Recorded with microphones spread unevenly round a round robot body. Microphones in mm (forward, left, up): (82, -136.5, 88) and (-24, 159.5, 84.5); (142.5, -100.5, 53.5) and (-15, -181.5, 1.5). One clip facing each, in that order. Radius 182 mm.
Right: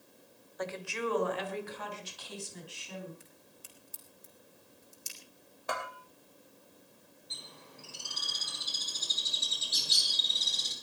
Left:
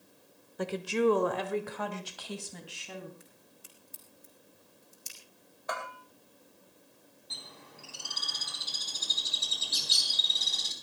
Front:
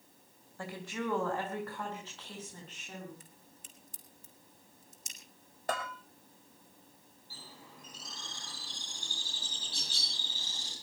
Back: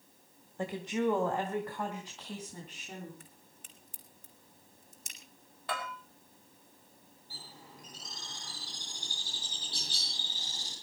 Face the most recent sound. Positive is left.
turn(degrees=135)